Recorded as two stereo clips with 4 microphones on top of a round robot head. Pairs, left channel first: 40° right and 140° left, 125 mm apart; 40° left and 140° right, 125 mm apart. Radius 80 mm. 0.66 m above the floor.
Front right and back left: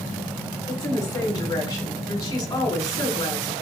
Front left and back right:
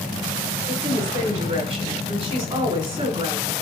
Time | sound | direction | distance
0.7 | a woman speaking | 100° right | 5 m